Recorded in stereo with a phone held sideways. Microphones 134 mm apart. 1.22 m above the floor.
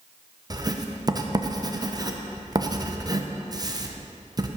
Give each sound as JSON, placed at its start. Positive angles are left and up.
{"t": 0.5, "sound": "writing", "side_deg": -30, "distance_m": 0.7}